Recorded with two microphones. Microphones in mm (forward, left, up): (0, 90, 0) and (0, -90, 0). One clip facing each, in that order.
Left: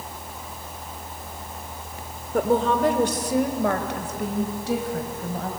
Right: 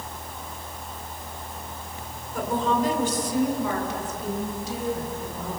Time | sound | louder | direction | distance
2.3 | a woman speaking | left 4 dB | 55° left (ahead or behind) | 1.8 m